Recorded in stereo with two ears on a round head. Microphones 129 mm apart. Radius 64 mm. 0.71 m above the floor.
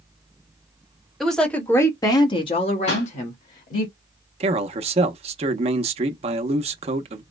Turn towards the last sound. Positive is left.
turn(degrees=-45)  # may be behind; listen again after turning